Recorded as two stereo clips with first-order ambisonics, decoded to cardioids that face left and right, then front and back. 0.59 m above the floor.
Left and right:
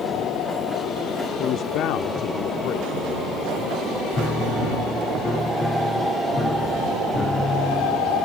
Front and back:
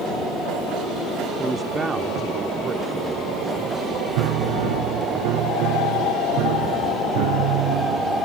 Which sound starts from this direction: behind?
A piano, at 4.2 s.